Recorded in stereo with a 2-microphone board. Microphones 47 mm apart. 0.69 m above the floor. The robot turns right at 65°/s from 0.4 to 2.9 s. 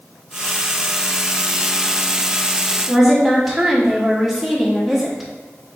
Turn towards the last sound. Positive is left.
turn(degrees=-5)  # may be behind; listen again after turning